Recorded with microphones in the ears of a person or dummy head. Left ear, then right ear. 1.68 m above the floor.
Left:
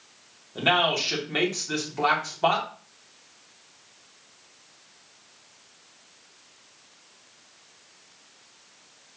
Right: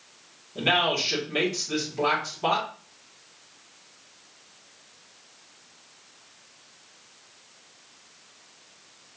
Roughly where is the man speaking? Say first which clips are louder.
Left 1 dB; left.